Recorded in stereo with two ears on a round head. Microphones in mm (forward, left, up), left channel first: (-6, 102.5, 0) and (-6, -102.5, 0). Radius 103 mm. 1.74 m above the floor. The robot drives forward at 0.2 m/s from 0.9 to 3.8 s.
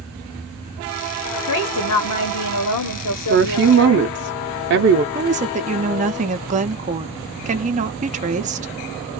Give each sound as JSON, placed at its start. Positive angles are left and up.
{"t": 1.5, "sound": "a woman speaking", "side_deg": 65, "distance_m": 1.1}
{"t": 3.3, "sound": "a woman speaking", "side_deg": -45, "distance_m": 0.6}
{"t": 5.2, "sound": "a woman speaking", "side_deg": -30, "distance_m": 0.7}